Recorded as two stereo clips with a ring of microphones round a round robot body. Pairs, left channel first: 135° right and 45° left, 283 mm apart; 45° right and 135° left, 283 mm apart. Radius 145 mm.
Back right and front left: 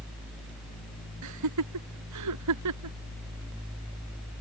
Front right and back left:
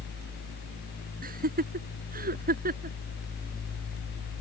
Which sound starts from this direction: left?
Laughter, at 1.2 s.